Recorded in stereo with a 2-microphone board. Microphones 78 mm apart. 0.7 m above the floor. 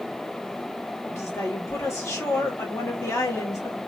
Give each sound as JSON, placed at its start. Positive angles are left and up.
{"t": 1.1, "sound": "a woman speaking", "side_deg": 40, "distance_m": 1.9}